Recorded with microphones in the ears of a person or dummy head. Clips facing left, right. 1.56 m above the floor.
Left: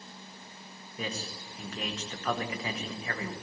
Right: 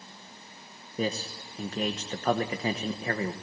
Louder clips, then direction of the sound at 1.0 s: Right 7 dB; 35° right (ahead or behind).